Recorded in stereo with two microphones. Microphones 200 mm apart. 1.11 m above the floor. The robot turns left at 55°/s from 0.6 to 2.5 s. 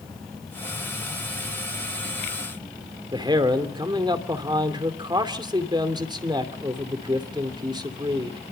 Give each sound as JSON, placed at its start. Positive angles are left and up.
{"t": 3.1, "sound": "a man speaking", "side_deg": -20, "distance_m": 2.5}